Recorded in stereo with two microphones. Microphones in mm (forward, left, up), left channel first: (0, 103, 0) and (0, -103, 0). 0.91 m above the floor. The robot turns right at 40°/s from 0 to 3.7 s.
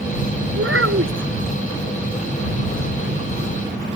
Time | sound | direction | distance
0.6 | a child speaking | 85° right | ?